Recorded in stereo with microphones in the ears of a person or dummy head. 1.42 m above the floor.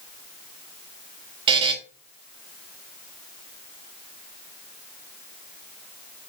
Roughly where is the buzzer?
Right.